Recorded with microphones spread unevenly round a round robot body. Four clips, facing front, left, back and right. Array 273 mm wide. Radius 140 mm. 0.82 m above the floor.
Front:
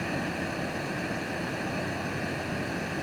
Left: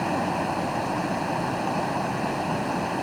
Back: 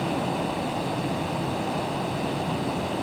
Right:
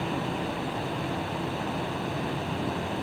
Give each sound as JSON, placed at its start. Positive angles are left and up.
{"t": 0.0, "sound": "running water", "azimuth_deg": 95}